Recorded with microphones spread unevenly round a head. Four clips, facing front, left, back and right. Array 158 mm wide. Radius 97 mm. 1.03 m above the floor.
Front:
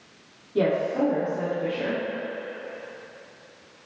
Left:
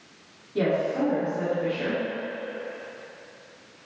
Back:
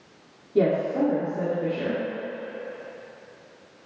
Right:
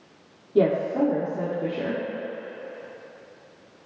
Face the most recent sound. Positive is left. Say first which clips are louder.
# right 4 dB, back 1 dB
turn(degrees=-120)